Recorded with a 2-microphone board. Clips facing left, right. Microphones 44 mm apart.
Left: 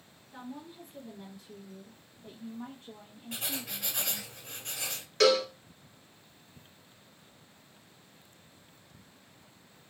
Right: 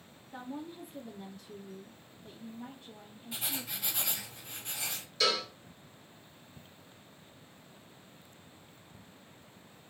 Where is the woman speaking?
25° right (ahead or behind), 0.9 m; by 4.3 s 75° left (ahead or behind), 1.7 m.